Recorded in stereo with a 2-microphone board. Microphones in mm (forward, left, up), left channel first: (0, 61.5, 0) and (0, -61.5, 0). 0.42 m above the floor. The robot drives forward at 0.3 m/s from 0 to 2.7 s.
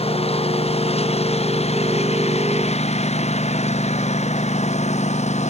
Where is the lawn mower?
55° left (ahead or behind); by 5.5 s 65° left (ahead or behind).